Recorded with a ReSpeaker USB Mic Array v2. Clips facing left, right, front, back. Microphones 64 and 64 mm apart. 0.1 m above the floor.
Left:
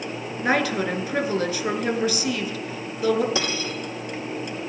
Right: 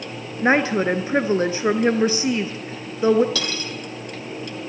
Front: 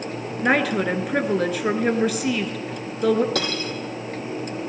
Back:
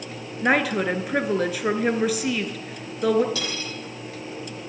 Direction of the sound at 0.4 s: 90° right.